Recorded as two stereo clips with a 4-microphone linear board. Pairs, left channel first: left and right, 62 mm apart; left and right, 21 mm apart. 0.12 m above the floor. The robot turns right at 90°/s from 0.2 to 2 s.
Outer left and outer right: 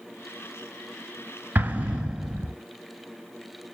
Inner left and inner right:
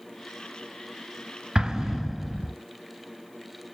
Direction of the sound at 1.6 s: 30° right (ahead or behind).